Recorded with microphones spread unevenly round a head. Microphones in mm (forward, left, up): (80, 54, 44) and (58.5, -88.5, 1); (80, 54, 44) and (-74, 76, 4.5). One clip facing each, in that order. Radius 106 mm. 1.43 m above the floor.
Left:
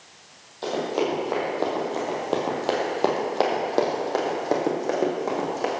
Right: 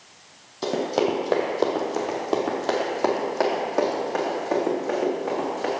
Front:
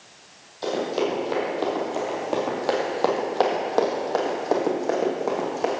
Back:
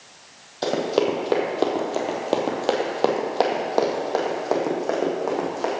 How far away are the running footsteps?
About 1.9 m.